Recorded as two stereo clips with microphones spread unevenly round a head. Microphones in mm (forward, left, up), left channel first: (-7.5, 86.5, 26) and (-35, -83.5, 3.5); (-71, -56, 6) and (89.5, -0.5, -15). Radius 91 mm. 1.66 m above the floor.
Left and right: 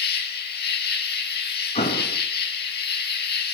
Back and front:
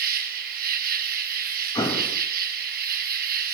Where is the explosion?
130° left, 4 m.